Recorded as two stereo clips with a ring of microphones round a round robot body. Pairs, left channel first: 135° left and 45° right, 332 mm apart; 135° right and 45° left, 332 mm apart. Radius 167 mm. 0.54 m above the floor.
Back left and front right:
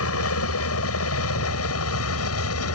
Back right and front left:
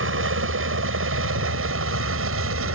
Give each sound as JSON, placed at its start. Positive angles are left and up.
{"t": 0.0, "sound": "a helicopter", "azimuth_deg": 95}